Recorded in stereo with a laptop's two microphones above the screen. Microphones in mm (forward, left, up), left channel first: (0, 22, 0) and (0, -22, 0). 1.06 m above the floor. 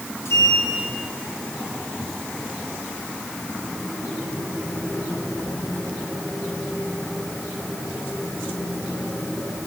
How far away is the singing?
I don't hear singing.